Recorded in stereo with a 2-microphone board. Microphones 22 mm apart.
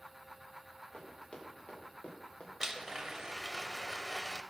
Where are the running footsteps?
65° left (ahead or behind), 5 m; by 2.5 s 75° left (ahead or behind), 4 m.